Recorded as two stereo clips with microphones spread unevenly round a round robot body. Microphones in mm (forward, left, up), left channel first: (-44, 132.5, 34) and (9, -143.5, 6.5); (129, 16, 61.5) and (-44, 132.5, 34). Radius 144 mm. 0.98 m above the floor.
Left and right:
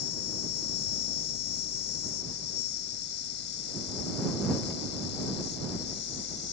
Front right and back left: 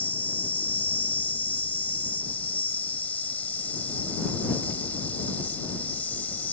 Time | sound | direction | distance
0.0 | an insect | 50° left | ?